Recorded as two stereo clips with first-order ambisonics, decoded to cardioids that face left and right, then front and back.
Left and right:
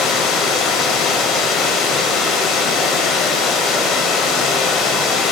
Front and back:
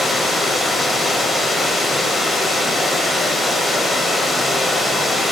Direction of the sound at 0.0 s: 75° left.